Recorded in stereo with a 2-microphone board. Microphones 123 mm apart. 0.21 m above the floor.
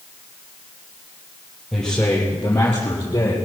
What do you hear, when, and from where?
1.7 s a man speaking: 5° left (ahead or behind), 4.5 m; by 3.4 s 35° left (ahead or behind), 5 m